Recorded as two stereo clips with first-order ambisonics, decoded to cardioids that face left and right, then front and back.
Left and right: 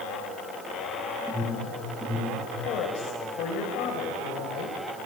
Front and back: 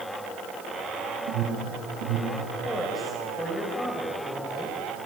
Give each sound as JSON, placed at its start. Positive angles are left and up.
{"t": 1.3, "sound": "an alarm", "azimuth_deg": 180, "distance_m": 5.5}
{"t": 2.6, "sound": "a woman speaking", "azimuth_deg": 90, "distance_m": 2.5}